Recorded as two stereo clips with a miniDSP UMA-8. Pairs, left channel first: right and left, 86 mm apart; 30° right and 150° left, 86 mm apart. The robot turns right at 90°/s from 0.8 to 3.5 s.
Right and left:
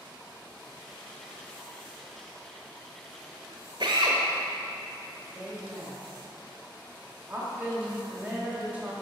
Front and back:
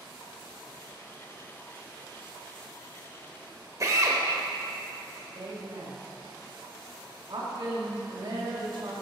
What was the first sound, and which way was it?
A drill, 105° left.